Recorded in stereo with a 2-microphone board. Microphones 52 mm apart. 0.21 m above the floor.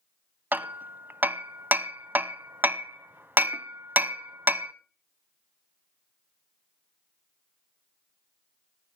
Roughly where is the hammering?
Right.